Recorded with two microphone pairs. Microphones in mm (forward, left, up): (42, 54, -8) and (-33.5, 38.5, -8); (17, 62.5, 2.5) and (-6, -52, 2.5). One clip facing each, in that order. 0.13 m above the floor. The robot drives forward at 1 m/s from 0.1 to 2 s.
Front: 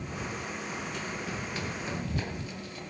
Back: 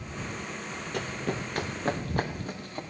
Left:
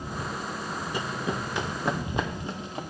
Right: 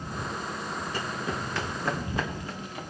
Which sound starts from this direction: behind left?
Running footsteps, at 0.9 s.